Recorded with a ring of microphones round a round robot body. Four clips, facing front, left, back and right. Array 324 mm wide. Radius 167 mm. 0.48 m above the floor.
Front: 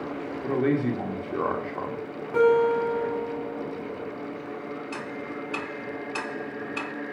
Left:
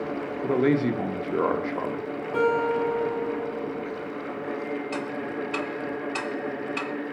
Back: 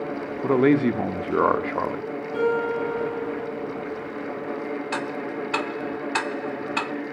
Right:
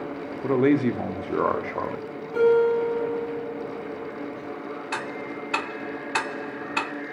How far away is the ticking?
About 0.7 m.